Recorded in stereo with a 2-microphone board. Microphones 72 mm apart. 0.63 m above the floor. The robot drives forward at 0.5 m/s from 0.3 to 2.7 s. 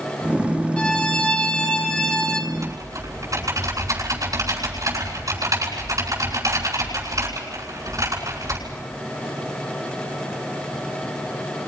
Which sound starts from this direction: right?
Typing on a keyboard, at 2.5 s.